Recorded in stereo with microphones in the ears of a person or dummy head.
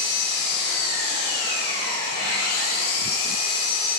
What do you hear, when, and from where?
0.0 s an engine running: 80° left, 3.5 m